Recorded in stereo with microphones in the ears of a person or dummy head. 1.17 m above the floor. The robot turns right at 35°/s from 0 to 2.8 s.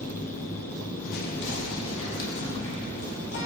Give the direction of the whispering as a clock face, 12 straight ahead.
10 o'clock.